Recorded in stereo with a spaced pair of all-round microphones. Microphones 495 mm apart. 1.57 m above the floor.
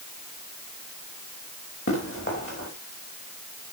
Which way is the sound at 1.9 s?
25° left (ahead or behind).